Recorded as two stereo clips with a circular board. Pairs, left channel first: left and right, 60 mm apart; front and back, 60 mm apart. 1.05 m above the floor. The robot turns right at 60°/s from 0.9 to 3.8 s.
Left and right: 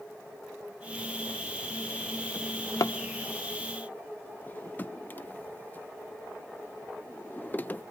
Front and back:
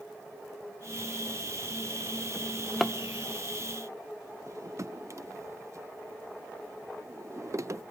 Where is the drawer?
60° left, 0.7 m; by 7.8 s 150° left, 0.7 m.